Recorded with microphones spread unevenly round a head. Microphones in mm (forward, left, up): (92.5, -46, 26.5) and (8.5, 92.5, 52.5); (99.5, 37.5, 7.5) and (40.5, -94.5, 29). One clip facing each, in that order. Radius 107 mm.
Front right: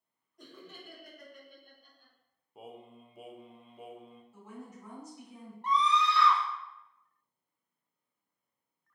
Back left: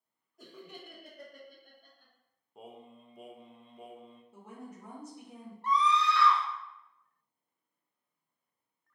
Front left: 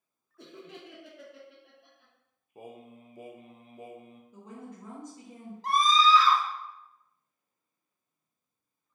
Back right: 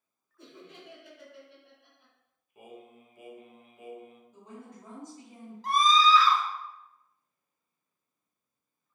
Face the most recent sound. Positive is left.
turn(degrees=-130)